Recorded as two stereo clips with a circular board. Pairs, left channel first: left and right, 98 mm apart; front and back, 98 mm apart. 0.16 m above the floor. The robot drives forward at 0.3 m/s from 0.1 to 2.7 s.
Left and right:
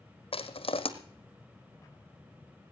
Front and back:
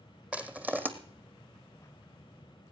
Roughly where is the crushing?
Left.